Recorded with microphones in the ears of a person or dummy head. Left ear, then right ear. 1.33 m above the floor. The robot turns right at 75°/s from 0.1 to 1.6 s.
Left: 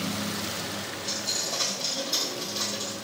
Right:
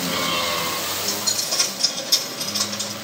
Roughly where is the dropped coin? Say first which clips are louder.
Right 3 dB; behind right.